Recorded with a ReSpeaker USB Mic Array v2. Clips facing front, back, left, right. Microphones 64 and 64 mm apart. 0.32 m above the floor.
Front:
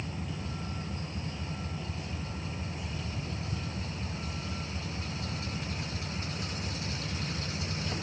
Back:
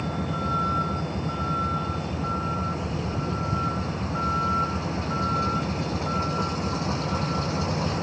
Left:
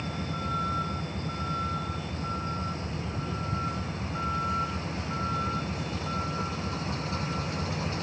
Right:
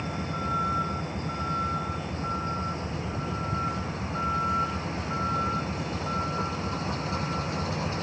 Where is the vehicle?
170° right.